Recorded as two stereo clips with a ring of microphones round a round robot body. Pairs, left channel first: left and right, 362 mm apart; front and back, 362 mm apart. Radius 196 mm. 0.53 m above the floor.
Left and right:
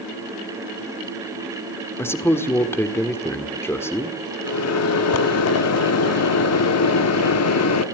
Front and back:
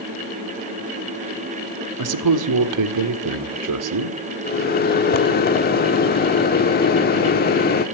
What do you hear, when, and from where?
2.0 s a man speaking: 170° left, 1.6 m
4.4 s a microwave: 55° left, 1.0 m